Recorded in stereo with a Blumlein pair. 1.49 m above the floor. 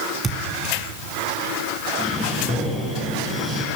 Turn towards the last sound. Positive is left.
turn(degrees=15)